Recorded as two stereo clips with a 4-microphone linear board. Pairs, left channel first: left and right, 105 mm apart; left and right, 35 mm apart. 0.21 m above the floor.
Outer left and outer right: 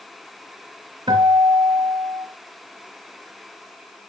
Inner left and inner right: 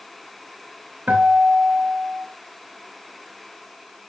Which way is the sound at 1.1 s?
40° right (ahead or behind).